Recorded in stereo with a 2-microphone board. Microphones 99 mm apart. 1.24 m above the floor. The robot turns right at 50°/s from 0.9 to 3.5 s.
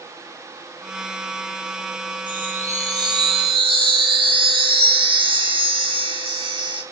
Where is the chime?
165° right, 2 m; by 6.8 s 105° right, 2 m.